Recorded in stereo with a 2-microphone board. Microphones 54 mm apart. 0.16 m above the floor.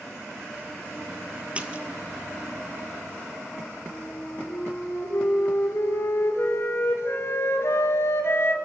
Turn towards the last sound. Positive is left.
turn(degrees=50)  # may be behind; listen again after turning